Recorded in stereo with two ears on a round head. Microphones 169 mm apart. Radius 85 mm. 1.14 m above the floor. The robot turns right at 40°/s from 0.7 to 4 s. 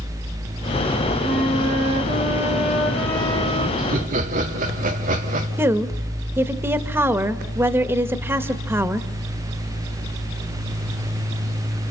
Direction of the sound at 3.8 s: 50° right (ahead or behind).